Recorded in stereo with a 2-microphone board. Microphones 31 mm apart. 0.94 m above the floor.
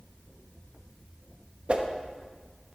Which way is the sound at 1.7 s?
40° right (ahead or behind).